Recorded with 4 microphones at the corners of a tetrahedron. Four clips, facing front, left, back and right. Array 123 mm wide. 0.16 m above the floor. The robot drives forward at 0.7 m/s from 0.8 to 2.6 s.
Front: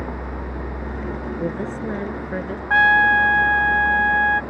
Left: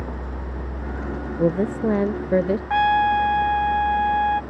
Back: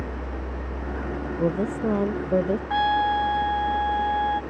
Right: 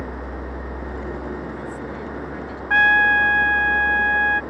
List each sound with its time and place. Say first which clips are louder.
0.0 s a vehicle: right 2 dB, front 3 dB; 15° left; by 4.5 s 5° left
1.4 s a woman speaking: left 10 dB, back 4 dB; 90° left; by 2.6 s 105° left
2.7 s a trumpet: right 2 dB, front 7 dB; 30° right